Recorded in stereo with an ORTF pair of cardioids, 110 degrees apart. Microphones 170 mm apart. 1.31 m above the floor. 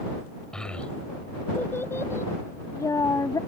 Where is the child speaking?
5° left; by 3.4 s 20° left.